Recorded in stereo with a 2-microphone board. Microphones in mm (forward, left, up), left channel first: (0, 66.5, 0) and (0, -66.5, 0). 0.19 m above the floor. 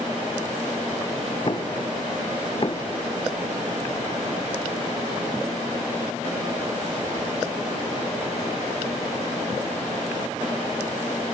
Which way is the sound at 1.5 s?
40° left (ahead or behind).